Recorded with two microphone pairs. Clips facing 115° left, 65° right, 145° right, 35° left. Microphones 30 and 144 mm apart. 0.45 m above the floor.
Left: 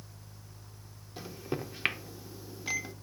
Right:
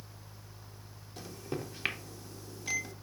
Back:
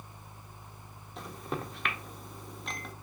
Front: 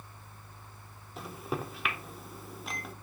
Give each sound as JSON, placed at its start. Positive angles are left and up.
{"t": 1.2, "sound": "a microwave", "azimuth_deg": 110, "distance_m": 0.5}